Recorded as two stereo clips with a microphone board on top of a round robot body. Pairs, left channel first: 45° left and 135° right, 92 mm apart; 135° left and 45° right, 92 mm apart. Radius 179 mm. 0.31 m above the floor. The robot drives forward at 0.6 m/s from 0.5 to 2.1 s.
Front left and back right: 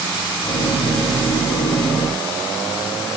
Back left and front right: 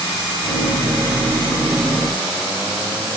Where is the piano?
No piano in this recording.